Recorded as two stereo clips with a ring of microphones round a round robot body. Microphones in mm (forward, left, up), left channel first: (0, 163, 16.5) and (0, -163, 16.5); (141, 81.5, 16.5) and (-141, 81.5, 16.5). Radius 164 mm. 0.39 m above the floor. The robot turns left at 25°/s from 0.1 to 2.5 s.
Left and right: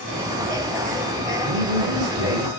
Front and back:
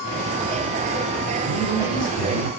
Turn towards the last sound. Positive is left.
turn(degrees=-45)